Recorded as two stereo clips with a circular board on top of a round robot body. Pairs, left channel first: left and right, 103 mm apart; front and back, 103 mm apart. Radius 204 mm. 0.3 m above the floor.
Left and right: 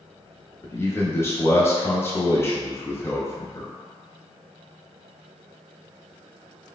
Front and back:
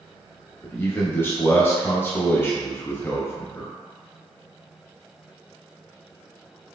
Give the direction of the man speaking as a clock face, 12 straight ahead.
10 o'clock.